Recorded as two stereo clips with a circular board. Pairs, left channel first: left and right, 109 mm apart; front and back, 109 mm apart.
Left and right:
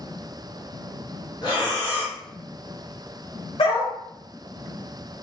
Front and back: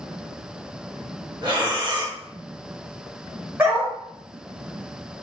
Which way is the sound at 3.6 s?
110° left.